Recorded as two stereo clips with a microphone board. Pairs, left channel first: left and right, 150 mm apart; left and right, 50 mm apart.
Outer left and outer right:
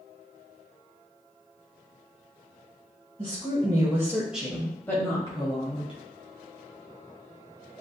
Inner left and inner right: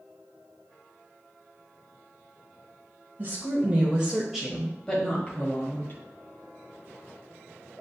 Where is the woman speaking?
40° right (ahead or behind), 1.2 m; by 6.0 s 40° left (ahead or behind), 1.5 m.